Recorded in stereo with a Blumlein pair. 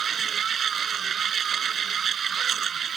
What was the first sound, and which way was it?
A machine running, 25° right.